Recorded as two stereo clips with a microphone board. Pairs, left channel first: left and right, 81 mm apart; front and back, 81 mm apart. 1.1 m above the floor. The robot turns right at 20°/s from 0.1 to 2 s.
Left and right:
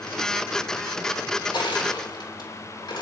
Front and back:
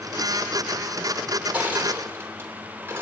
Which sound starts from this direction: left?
Crushing, at 1.5 s.